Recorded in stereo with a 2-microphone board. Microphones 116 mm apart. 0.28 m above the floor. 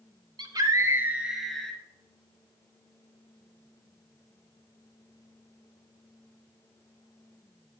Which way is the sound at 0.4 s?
40° right (ahead or behind).